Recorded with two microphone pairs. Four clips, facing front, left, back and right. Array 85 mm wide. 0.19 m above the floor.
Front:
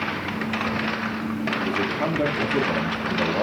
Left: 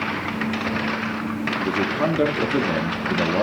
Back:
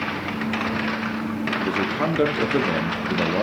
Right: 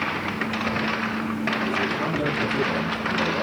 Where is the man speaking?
145° left, 3 m.